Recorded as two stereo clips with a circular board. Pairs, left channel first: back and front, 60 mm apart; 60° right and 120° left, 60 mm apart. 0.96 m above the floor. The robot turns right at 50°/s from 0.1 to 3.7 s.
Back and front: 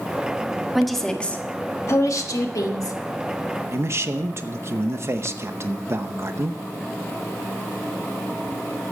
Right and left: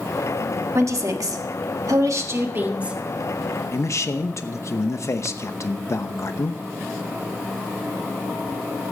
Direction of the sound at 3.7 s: 35° right.